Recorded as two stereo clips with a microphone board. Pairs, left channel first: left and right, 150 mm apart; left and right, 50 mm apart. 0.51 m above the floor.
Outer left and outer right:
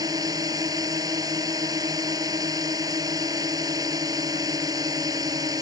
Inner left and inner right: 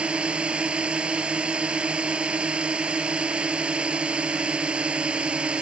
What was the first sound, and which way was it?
A drone, 25° right (ahead or behind).